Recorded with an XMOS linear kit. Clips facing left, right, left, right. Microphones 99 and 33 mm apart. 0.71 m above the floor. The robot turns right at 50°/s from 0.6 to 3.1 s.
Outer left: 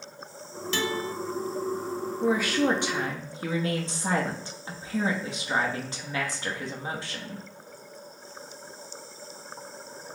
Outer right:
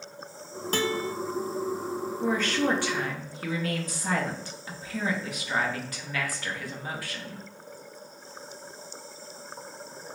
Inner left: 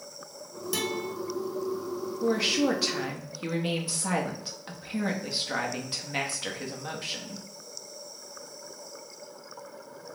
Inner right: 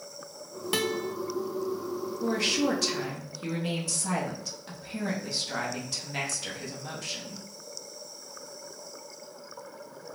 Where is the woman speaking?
5° left, 0.8 m; by 7.4 s 50° left, 0.8 m.